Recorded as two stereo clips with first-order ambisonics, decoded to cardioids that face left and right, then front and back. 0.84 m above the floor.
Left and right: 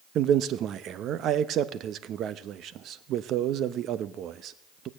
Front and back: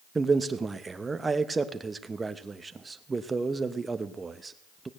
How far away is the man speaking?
About 0.6 m.